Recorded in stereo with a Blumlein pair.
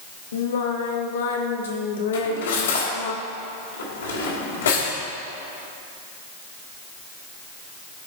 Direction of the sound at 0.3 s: 60° left.